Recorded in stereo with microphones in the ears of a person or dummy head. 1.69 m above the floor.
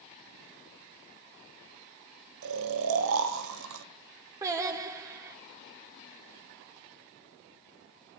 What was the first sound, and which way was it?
Snoring, 85° right.